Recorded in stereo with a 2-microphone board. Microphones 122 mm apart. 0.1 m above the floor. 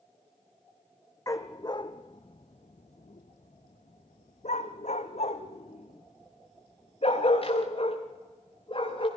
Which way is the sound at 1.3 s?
25° left (ahead or behind).